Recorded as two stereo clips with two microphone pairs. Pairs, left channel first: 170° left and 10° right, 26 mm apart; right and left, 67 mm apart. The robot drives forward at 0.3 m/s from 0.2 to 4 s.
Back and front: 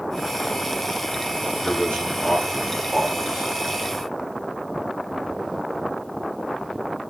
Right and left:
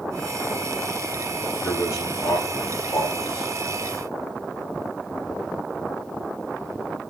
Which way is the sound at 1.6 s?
135° right.